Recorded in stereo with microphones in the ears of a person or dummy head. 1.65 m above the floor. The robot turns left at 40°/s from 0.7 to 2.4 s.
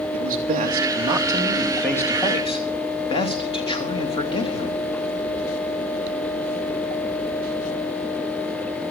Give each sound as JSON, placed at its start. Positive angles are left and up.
{"t": 0.1, "sound": "a man speaking", "azimuth_deg": -135, "distance_m": 2.5}